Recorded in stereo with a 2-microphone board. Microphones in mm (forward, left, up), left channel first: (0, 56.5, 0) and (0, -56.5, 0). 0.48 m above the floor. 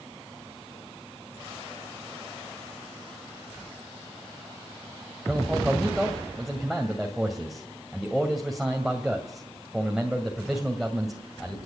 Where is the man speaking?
Centre (ahead or behind), 2.5 m.